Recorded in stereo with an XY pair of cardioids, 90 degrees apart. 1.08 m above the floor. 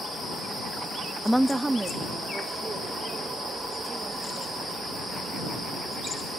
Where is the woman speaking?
Straight ahead; by 5.9 s 40° right.